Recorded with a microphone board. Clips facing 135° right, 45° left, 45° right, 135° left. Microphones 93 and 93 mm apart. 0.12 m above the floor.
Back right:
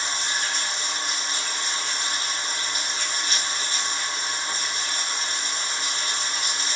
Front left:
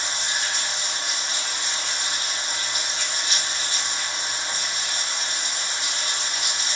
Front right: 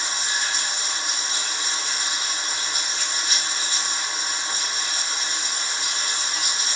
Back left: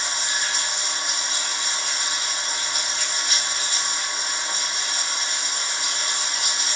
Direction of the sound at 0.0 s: Straight behind.